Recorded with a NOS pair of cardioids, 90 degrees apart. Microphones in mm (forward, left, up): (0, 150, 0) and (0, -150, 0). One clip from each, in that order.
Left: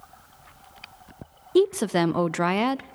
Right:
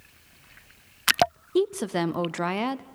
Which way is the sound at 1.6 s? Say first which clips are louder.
Left 4 dB; 15° left.